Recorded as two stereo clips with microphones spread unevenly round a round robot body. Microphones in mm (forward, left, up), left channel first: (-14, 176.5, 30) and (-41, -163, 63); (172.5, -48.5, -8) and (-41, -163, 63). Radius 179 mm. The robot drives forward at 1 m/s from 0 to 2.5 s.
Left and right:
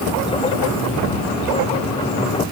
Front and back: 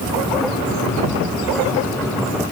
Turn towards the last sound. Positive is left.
No sound to turn to.